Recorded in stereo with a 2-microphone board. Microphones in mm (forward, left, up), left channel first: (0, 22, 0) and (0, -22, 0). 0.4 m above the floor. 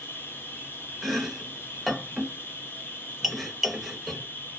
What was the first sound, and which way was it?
An insect, 50° left (ahead or behind).